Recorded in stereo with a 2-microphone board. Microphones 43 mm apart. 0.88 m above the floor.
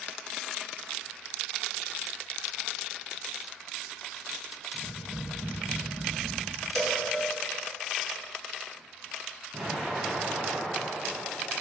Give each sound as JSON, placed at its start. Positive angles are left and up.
{"t": 4.7, "sound": "tapping", "side_deg": -35, "distance_m": 0.7}
{"t": 6.8, "sound": "a cowbell", "side_deg": 10, "distance_m": 0.6}
{"t": 9.5, "sound": "an explosion", "side_deg": -50, "distance_m": 1.1}